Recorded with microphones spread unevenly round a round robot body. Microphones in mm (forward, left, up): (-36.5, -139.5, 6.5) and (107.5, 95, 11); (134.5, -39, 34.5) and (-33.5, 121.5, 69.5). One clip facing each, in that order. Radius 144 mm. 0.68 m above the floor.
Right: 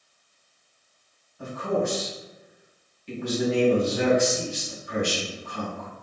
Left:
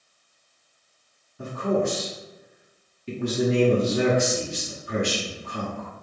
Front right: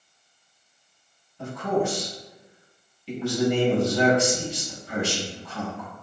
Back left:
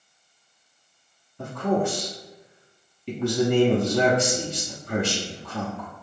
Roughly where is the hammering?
No hammering in this recording.